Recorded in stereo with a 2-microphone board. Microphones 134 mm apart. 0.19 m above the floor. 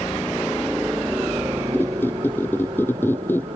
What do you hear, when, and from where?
0.0 s a helicopter: 15° left (ahead or behind); by 3.6 s 50° right (ahead or behind)
1.7 s a squeak: 15° left (ahead or behind)